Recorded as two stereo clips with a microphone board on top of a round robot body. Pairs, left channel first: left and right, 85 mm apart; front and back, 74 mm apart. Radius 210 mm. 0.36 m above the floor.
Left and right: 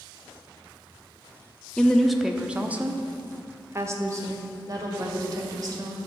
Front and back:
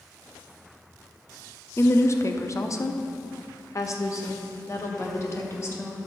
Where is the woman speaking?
15° left, 1.1 m; by 6.0 s 50° right, 2.5 m.